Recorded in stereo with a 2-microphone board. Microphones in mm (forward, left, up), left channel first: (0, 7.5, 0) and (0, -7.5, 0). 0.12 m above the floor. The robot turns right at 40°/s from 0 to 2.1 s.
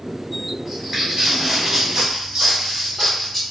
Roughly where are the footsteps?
Centre.